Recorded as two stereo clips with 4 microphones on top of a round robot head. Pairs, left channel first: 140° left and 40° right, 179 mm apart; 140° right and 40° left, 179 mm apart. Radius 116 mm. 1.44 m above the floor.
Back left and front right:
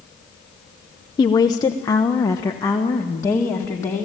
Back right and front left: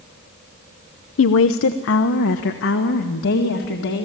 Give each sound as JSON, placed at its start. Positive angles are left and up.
{"t": 1.2, "sound": "a woman speaking", "azimuth_deg": -150, "distance_m": 0.6}